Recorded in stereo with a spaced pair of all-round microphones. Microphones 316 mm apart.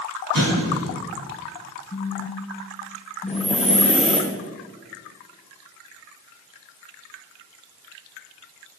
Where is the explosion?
80° right, 6 m.